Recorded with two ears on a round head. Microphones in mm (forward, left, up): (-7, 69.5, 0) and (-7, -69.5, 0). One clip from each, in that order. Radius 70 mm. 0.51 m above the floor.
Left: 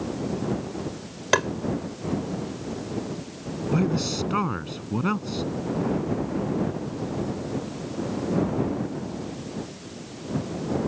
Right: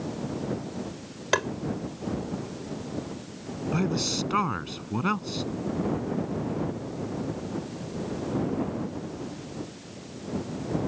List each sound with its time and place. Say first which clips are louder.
1.3 s tapping: left 4 dB; 5° left (ahead or behind)
3.7 s a man speaking: left 2 dB; 30° right (ahead or behind)